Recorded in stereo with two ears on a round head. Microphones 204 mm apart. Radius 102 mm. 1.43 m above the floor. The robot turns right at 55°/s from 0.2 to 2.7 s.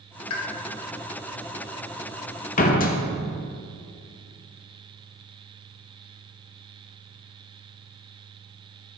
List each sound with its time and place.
0.3 s a pop: 75° left (ahead or behind), 1.1 m
2.6 s a door slam: 35° left (ahead or behind), 0.7 m